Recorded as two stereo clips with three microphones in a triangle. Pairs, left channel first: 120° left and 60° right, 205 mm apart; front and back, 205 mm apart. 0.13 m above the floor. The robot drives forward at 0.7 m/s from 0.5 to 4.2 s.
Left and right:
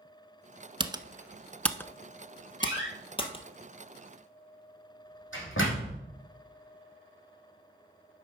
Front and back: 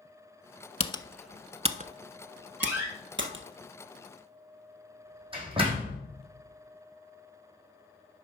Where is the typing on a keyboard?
20° right, 0.6 m; by 3.4 s 175° right, 1.6 m.